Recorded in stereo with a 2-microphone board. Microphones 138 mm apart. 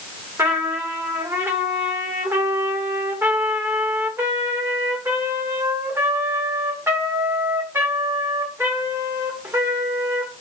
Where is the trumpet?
20° right (ahead or behind), 1.7 m.